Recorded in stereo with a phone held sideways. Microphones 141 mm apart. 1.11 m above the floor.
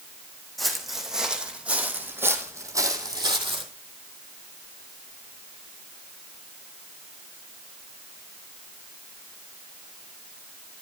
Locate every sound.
0.6 s footsteps: centre (ahead or behind), 4 m; by 3.7 s 40° right (ahead or behind), 2.5 m